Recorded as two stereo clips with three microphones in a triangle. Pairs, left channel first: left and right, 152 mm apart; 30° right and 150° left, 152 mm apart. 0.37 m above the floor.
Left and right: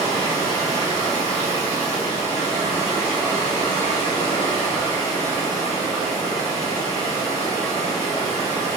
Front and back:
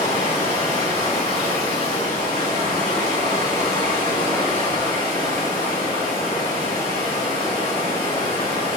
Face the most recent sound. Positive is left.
turn(degrees=20)